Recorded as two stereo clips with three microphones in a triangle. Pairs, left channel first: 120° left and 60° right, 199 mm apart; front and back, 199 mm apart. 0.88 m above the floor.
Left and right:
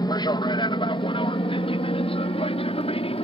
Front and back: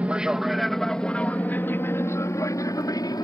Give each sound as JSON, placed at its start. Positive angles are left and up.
{"t": 0.0, "sound": "an aircraft", "azimuth_deg": 110}